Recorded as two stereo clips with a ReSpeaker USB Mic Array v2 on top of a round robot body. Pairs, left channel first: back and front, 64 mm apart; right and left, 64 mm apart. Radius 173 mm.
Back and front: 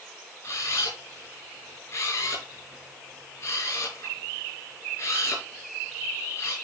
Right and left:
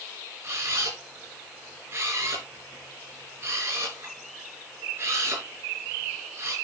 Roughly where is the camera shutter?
Behind left.